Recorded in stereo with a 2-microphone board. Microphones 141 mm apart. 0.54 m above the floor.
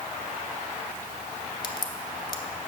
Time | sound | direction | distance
1.6 | a crack | 30° left (ahead or behind) | 0.8 m